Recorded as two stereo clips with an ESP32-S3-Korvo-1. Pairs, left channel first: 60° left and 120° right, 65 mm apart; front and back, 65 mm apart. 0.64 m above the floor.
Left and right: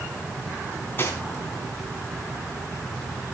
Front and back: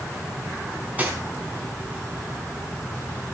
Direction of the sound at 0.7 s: 115° left.